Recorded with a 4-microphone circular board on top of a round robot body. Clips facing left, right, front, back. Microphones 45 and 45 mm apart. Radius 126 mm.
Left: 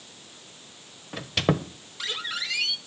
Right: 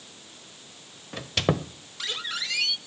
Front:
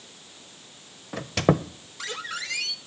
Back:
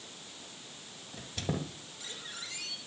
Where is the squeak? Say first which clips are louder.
Left 1 dB, front 14 dB; 5° left, 0.7 m.